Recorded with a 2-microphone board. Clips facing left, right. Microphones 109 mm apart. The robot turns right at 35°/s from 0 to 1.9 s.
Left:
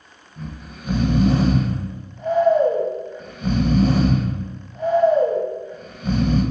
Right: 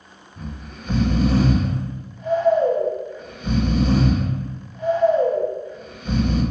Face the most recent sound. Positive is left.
turn(degrees=45)  # may be behind; listen again after turning